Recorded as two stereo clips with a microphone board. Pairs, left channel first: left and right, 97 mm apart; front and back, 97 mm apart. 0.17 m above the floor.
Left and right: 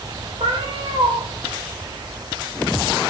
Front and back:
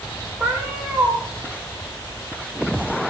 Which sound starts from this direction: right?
A cat meowing, at 0.4 s.